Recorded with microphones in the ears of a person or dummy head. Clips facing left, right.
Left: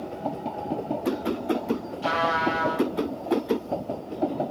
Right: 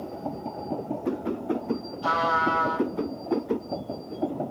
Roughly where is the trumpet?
Left.